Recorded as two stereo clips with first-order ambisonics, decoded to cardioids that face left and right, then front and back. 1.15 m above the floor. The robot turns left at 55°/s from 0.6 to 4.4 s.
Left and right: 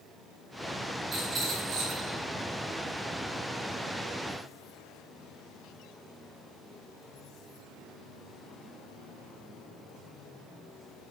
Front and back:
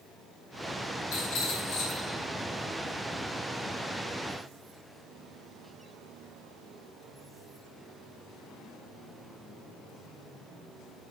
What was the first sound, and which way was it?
A rattle, 5° right.